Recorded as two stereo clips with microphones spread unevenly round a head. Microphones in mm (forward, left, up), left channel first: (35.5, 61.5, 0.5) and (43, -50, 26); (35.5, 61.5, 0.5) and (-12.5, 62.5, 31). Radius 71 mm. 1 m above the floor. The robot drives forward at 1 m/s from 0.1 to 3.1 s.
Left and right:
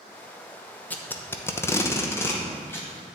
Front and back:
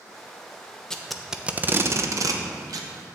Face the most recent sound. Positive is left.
turn(degrees=165)